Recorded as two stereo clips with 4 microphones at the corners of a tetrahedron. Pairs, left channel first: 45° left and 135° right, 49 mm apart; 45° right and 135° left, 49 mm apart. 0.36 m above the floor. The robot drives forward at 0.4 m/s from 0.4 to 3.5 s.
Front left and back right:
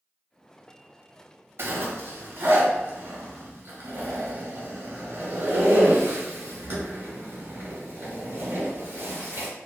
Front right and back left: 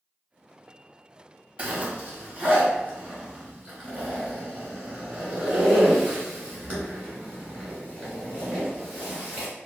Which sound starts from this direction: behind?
A zipper, at 1.6 s.